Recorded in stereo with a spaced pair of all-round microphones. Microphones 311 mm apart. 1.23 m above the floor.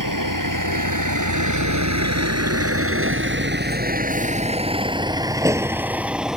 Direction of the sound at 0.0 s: 85° right.